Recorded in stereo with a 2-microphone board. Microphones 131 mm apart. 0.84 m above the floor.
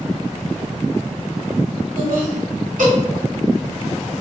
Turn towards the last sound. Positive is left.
turn(degrees=-80)